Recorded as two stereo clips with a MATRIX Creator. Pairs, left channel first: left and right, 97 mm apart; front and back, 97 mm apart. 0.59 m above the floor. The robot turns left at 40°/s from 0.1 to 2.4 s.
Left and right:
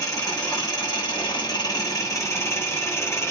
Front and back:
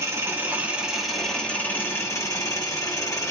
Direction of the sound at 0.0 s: 130° left.